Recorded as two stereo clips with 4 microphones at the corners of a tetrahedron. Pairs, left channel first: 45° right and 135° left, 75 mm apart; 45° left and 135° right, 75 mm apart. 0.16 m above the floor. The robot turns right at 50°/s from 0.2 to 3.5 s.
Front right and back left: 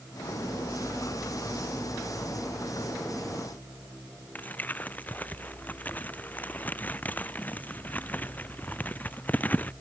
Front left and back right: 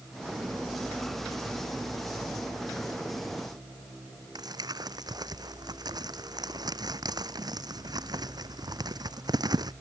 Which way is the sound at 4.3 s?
110° right.